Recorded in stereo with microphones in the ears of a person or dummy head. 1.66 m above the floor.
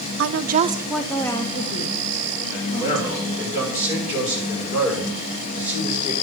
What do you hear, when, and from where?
0.2 s a woman speaking: 75° right (ahead or behind), 0.7 m; by 3.5 s 45° left (ahead or behind), 3.5 m
2.5 s a man speaking: 45° left (ahead or behind), 6.5 m